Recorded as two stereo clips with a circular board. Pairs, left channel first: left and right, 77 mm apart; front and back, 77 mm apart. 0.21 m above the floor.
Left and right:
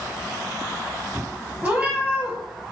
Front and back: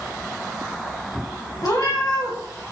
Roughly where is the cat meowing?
Ahead.